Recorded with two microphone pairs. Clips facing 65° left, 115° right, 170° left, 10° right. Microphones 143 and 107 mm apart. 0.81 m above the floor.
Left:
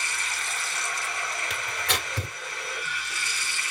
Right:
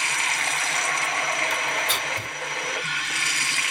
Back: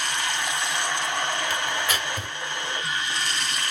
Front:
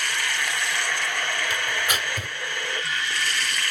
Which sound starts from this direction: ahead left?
Tearing paper, at 1.5 s.